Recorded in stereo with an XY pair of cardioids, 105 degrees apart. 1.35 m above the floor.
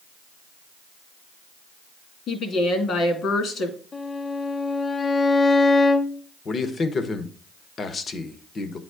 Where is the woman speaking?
65° left, 2.5 m.